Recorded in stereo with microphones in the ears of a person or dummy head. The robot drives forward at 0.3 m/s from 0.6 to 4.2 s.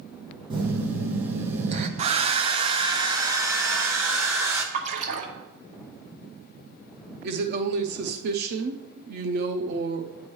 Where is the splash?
45° right (ahead or behind), 1.3 m.